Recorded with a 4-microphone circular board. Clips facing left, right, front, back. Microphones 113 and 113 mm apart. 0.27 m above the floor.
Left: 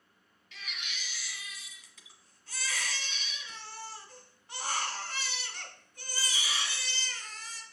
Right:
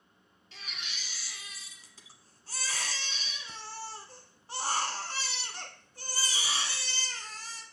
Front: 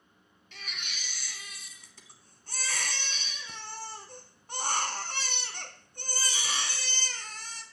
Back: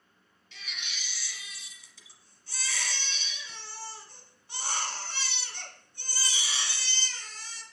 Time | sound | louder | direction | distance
0.5 | a baby crying | left 1 dB, front 1 dB | 35° right | 1.1 m